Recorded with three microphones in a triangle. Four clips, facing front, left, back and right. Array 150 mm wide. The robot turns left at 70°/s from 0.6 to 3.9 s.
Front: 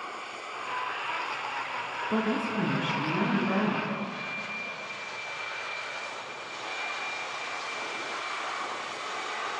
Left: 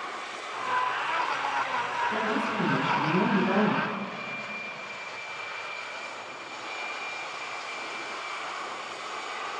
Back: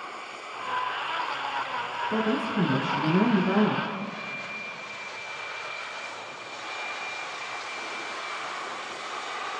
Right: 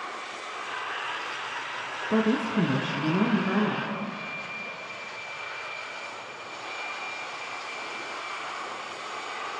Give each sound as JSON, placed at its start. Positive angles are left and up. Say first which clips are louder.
{"t": 2.1, "sound": "a woman speaking", "louder": "right 4 dB, back 1 dB", "azimuth_deg": -85, "distance_m": 2.0}